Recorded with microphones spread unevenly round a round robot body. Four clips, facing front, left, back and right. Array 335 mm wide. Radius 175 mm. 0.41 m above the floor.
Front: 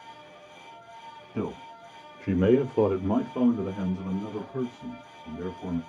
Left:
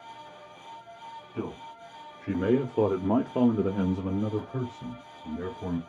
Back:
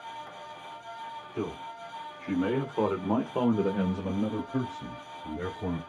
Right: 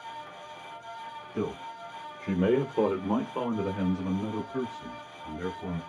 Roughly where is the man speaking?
Ahead right.